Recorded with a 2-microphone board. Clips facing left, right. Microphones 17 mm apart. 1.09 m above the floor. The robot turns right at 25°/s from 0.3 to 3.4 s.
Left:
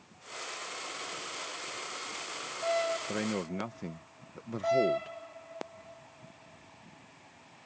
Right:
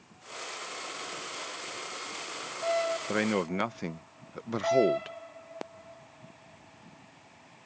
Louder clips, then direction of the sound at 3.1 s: Right 5 dB; 35° right (ahead or behind).